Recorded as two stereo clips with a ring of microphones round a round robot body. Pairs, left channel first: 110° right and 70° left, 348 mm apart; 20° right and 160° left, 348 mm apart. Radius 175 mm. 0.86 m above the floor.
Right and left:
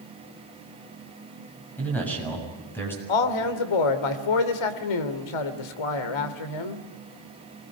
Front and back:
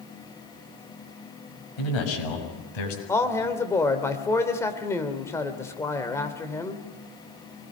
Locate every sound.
1.8 s a man speaking: 25° right, 6.5 m; by 3.0 s 30° right, 7.5 m
3.1 s a man speaking: 105° right, 2.5 m